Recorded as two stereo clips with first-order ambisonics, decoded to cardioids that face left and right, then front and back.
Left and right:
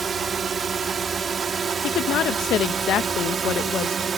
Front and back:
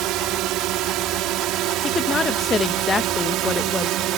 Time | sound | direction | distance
0.0 | a drone | 160° right | ?
1.8 | a woman speaking | 65° left | ?